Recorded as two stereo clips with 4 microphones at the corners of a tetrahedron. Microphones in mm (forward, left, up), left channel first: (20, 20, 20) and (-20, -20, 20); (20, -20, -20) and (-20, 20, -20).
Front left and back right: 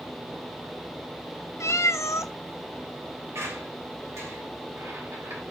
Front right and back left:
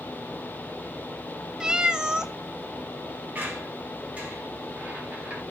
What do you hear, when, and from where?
1.6 s a cat meowing: 60° left, 0.6 m
3.4 s a squeak: 165° right, 3 m